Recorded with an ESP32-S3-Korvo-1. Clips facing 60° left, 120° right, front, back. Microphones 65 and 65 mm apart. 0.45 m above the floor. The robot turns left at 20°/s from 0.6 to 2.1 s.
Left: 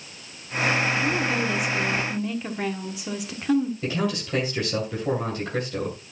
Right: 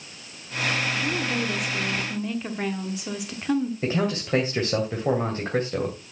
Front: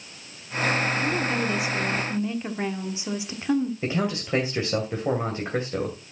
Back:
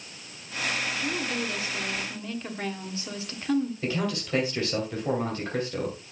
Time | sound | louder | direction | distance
1.0 | a woman speaking | left 2 dB, front 5 dB | 10° right | 1.3 m
3.8 | a man speaking | right 1 dB, front 2 dB | 65° right | 2.5 m